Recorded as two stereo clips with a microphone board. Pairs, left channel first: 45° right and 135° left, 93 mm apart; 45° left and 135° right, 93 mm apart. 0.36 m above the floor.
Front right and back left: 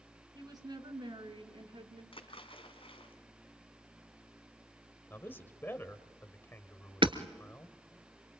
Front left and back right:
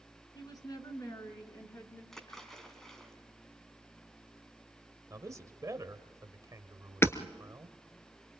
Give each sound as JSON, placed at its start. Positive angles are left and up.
{"t": 0.3, "sound": "a woman speaking", "azimuth_deg": 90, "distance_m": 3.5}
{"t": 2.1, "sound": "a splash", "azimuth_deg": -40, "distance_m": 3.0}
{"t": 5.1, "sound": "a man speaking", "azimuth_deg": -100, "distance_m": 1.6}
{"t": 7.0, "sound": "hammering", "azimuth_deg": 110, "distance_m": 1.2}